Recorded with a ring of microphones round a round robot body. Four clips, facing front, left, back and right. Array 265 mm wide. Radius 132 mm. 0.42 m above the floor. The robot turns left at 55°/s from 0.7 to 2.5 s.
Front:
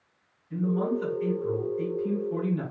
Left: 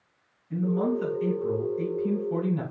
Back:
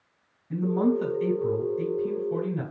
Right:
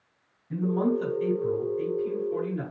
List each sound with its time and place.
0.5 s a man speaking: 150° right, 3 m; by 2.6 s 110° left, 3 m